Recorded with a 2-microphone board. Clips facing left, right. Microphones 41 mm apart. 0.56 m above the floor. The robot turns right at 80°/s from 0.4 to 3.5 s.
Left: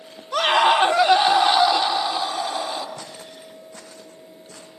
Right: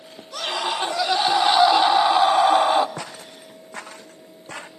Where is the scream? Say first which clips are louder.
Left 9 dB; 90° left, 1.5 m; by 2.9 s 75° right, 1.5 m.